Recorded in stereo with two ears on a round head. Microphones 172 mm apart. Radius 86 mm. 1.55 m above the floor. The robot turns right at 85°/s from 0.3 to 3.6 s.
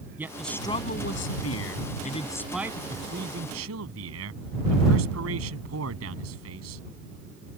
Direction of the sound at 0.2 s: 10° right.